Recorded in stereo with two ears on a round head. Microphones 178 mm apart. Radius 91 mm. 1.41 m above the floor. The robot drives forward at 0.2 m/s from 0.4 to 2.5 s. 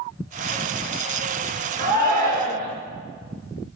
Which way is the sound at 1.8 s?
40° right (ahead or behind).